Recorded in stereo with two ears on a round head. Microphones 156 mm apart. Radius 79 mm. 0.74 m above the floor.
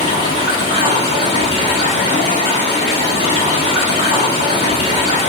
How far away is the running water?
About 1.0 m.